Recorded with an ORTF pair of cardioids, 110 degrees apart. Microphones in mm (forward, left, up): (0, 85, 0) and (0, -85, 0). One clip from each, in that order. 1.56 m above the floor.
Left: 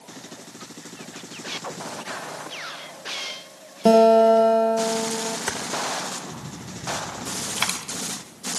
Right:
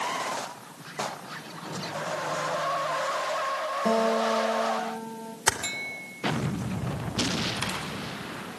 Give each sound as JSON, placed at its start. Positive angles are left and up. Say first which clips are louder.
{"t": 3.9, "sound": "a guitar", "louder": "left 12 dB", "azimuth_deg": 55, "distance_m": 1.4}
{"t": 5.5, "sound": "typing on a keyboard", "louder": "right 8 dB", "azimuth_deg": -35, "distance_m": 3.0}
{"t": 7.6, "sound": "a dropped coin", "louder": "left 5 dB", "azimuth_deg": 55, "distance_m": 4.5}